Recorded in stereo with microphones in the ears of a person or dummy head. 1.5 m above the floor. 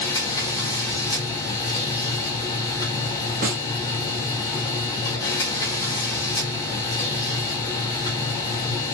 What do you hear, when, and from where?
0.0 s a machine running: 20° left (ahead or behind), 1.0 m
3.4 s a snare drum: 40° right (ahead or behind), 0.9 m